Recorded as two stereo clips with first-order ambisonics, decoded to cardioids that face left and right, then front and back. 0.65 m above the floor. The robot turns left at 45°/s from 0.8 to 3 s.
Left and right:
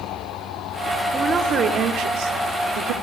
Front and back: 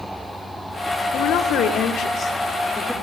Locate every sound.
1.1 s a woman speaking: 15° right, 1.8 m; by 2.9 s 95° right, 1.8 m